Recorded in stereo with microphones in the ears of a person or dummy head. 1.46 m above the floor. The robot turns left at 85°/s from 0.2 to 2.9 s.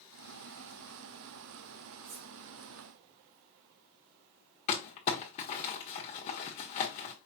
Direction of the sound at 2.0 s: 50° right (ahead or behind).